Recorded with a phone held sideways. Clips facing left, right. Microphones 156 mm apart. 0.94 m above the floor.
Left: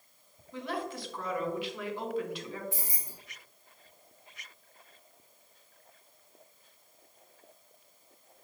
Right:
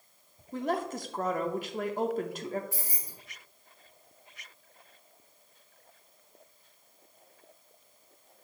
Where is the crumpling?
No crumpling in this recording.